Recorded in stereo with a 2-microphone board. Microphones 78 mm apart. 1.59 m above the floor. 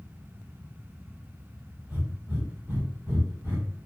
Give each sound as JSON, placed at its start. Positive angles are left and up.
{"t": 1.9, "sound": "breathing", "side_deg": -15, "distance_m": 1.6}